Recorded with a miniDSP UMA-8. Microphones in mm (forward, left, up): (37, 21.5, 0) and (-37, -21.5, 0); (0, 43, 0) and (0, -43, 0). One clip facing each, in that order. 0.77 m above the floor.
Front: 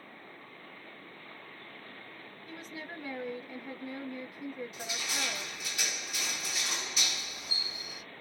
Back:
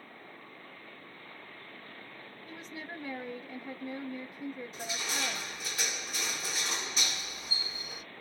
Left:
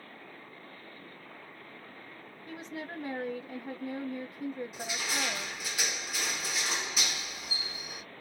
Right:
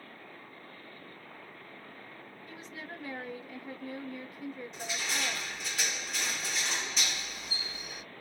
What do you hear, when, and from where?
2.5 s a woman speaking: 125° left, 1.1 m
4.7 s crushing: 170° left, 1.6 m